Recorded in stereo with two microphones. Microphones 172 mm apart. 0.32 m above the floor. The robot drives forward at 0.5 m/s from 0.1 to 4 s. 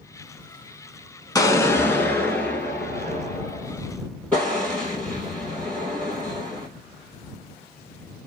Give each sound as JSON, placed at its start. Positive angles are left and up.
{"t": 1.4, "sound": "an explosion", "side_deg": 20, "distance_m": 0.5}